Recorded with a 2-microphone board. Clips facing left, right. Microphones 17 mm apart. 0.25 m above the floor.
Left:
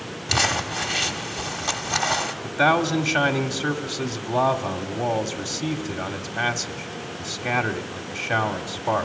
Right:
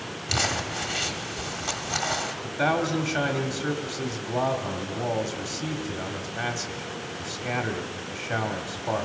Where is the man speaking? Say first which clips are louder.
Left 5 dB; 30° left (ahead or behind), 1.1 m.